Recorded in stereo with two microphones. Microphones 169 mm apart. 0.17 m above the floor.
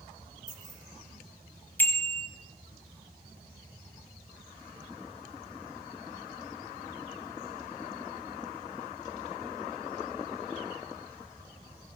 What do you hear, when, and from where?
0.5 s keys jangling: 25° right (ahead or behind), 9 m
1.8 s a bicycle bell: 10° left (ahead or behind), 3 m